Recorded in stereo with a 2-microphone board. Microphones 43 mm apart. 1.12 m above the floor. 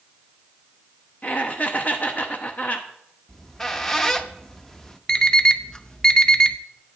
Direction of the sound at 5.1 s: 15° left (ahead or behind).